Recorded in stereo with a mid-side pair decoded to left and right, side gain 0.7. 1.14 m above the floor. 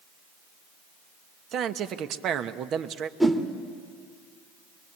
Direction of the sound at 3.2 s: 5° right.